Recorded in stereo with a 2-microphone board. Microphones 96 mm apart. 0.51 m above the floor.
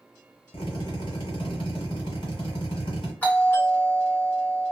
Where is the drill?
55° left (ahead or behind), 1.5 m.